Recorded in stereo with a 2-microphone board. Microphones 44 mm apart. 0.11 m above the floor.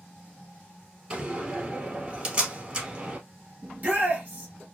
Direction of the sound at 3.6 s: 35° right (ahead or behind).